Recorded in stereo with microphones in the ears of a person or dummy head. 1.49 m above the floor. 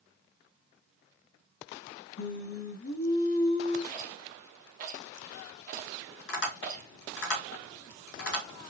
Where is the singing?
55° left (ahead or behind), 0.8 m.